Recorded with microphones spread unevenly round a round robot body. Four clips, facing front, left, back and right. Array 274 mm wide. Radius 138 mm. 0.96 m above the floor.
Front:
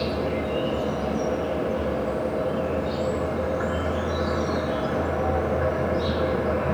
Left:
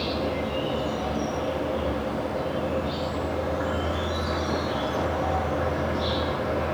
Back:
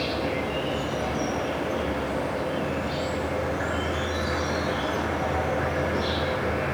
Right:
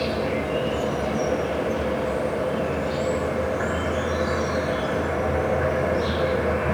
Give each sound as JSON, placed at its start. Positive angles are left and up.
{"t": 0.0, "sound": "an insect", "azimuth_deg": -60, "distance_m": 5.0}